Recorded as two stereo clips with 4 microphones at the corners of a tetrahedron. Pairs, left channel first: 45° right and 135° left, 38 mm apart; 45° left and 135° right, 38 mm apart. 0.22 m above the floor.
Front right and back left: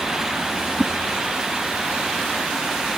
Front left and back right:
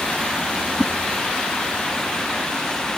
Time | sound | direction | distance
0.8 | a whoosh | straight behind | ?